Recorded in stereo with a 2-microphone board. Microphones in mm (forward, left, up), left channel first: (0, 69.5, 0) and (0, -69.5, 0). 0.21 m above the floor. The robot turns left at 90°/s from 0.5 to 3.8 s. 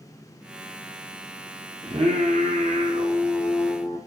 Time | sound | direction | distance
1.8 | singing | 30° right | 2.5 m